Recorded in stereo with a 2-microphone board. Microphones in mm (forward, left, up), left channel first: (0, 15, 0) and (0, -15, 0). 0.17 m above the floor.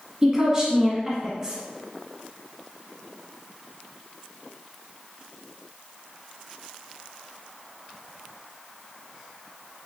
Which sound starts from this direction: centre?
A woman speaking, at 0.2 s.